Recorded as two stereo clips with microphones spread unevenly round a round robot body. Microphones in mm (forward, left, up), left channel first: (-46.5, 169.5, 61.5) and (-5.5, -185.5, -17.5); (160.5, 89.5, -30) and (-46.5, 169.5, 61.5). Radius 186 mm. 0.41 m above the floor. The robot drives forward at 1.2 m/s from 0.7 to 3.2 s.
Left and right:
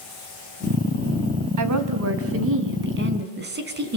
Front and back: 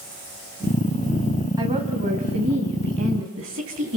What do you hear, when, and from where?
1.6 s a woman speaking: 115° right, 3 m; by 4.0 s 140° right, 4 m